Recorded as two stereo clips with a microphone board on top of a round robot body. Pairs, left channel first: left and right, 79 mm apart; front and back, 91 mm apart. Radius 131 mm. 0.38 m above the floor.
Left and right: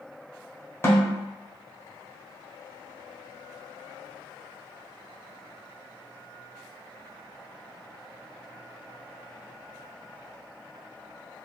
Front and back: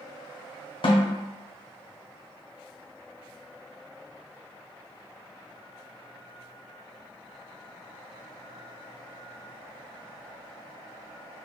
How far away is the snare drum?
About 1.2 m.